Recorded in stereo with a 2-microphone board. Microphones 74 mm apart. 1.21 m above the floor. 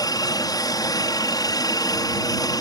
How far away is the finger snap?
I don't hear a finger snap.